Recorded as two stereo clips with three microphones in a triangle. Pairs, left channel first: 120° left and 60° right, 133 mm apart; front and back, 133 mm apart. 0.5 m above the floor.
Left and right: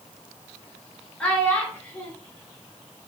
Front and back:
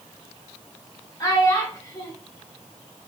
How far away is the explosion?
No explosion in this recording.